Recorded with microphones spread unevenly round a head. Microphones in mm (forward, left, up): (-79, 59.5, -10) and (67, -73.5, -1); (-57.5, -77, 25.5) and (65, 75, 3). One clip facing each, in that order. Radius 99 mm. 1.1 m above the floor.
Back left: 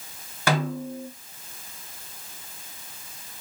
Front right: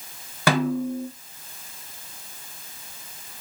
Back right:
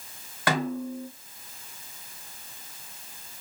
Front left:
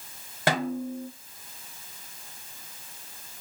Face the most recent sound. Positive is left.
turn(degrees=-10)